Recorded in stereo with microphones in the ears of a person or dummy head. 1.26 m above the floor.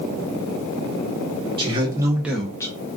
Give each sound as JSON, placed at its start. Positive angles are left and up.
{"t": 1.6, "sound": "a man speaking", "side_deg": -30, "distance_m": 1.1}